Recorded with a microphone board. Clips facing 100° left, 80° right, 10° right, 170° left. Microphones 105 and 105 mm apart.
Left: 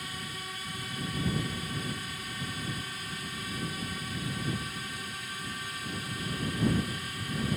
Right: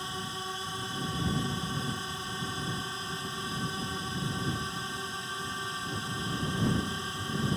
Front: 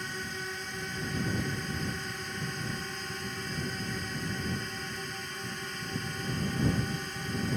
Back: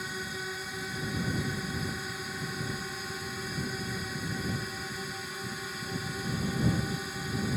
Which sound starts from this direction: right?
A drone, at 0.0 s.